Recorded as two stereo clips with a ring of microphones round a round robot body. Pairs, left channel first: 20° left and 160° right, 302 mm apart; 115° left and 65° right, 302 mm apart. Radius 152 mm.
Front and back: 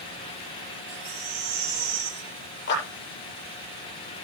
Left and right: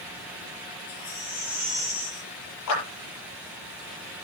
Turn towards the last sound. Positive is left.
turn(degrees=80)